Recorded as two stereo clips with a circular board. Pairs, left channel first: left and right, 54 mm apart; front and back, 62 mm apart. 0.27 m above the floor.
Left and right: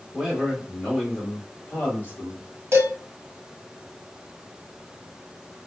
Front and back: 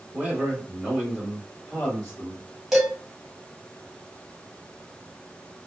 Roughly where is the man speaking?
Behind right.